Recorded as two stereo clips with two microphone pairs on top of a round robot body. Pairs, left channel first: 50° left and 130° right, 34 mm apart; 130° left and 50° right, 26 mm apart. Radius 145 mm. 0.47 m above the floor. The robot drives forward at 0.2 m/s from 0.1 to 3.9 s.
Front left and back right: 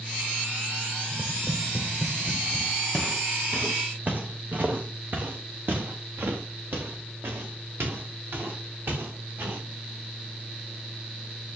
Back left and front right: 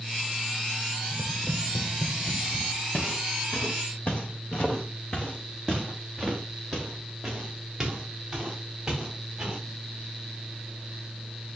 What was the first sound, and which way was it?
Tapping, 150° left.